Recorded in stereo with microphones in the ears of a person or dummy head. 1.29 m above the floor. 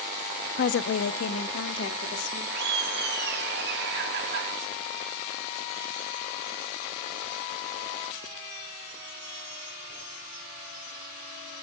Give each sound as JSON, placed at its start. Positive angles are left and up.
{"t": 0.6, "sound": "a woman speaking", "side_deg": 50, "distance_m": 0.5}
{"t": 2.5, "sound": "laughter", "side_deg": -65, "distance_m": 2.5}